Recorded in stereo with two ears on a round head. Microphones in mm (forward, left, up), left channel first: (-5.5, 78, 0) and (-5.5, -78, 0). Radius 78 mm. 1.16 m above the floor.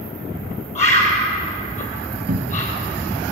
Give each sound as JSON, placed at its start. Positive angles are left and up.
{"t": 0.8, "sound": "a bird", "side_deg": 40, "distance_m": 4.5}
{"t": 2.3, "sound": "a cupboard door", "side_deg": -55, "distance_m": 1.1}